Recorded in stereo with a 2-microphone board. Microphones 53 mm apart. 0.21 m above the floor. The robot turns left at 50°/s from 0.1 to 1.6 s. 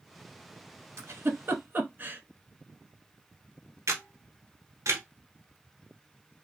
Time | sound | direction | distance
1.0 | a giggle | 65° right (ahead or behind) | 0.8 m
3.9 | a camera shutter | 75° right (ahead or behind) | 1.0 m